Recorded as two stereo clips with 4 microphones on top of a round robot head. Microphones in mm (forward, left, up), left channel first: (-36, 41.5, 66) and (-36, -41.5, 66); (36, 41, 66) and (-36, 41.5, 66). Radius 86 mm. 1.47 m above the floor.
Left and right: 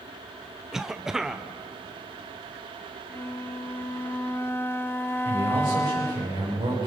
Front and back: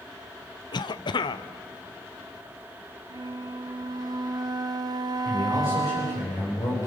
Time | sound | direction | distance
0.7 | a cough | 5° right | 0.8 m
3.1 | a flute | 155° left | 1.2 m
5.2 | a man speaking | 50° right | 6 m